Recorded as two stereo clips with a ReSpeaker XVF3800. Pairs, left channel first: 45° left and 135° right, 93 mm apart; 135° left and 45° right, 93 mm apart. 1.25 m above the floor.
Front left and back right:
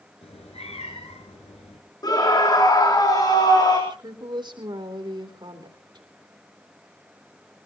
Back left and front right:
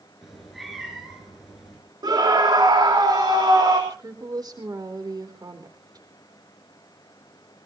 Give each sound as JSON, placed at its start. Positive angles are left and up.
{"t": 0.2, "sound": "a cat meowing", "azimuth_deg": 45, "distance_m": 6.5}
{"t": 2.0, "sound": "a scream", "azimuth_deg": 0, "distance_m": 3.5}
{"t": 3.9, "sound": "a woman speaking", "azimuth_deg": -95, "distance_m": 3.5}